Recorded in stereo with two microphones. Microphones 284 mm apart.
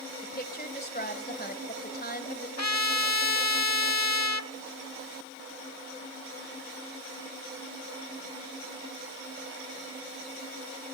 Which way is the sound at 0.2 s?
35° left (ahead or behind).